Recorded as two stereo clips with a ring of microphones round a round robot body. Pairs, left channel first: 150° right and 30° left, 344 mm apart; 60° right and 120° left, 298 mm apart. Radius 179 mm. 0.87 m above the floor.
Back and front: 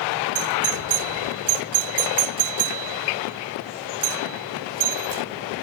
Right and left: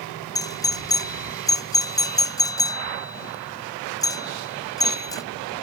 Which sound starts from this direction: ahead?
A doorbell, at 0.3 s.